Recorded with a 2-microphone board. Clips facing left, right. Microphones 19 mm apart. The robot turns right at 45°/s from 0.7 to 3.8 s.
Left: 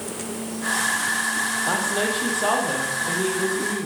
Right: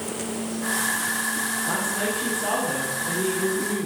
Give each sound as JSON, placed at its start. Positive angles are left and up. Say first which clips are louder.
{"t": 1.7, "sound": "a woman speaking", "louder": "left 3 dB", "azimuth_deg": 95, "distance_m": 4.5}